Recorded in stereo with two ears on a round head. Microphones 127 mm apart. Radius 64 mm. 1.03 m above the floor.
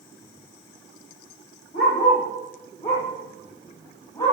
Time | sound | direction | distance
1.7 | a dog barking | 50° left (ahead or behind) | 8.5 m